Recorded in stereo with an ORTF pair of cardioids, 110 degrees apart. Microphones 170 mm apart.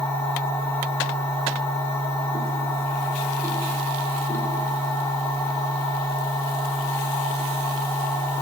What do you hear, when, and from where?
0.0 s a machine running: 15° left, 1.1 m